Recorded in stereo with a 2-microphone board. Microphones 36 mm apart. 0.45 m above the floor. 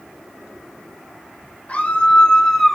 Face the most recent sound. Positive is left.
turn(degrees=10)  # may be behind; listen again after turning